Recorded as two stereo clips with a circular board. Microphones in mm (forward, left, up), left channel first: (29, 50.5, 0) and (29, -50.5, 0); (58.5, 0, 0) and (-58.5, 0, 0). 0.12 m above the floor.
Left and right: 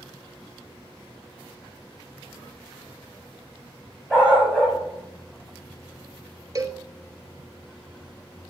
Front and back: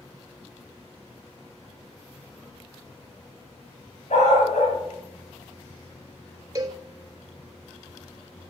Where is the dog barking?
15° right, 6.5 m.